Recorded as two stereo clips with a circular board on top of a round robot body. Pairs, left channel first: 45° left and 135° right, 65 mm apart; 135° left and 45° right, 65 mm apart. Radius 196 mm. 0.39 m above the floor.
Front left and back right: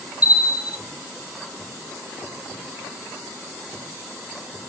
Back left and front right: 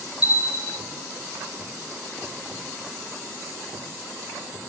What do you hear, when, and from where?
0.2 s a bell: 100° right, 1.3 m